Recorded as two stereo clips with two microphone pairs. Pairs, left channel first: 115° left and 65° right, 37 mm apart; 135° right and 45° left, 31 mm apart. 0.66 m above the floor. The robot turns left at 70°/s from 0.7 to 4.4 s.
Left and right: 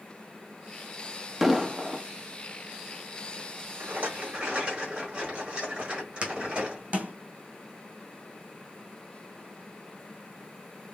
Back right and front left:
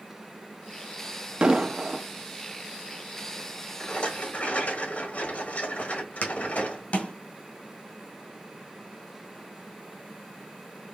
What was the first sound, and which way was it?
An explosion, 20° left.